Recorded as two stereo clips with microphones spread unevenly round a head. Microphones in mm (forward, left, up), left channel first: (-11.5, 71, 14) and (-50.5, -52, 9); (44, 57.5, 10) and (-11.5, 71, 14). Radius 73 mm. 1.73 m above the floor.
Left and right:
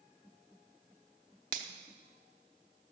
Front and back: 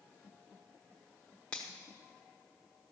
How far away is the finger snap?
About 0.9 m.